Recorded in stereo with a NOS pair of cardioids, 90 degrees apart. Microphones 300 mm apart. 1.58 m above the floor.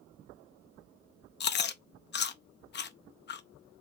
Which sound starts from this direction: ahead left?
Chewing, at 1.4 s.